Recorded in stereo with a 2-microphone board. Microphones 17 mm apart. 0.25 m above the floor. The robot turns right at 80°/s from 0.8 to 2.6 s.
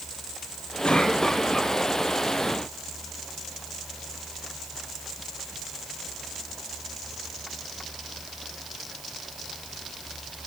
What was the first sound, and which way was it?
A cough, 105° left.